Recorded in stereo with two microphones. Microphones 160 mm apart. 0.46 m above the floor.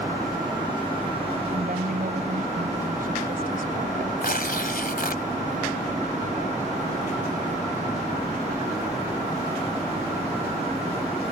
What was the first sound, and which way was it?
A woman speaking, 65° right (ahead or behind).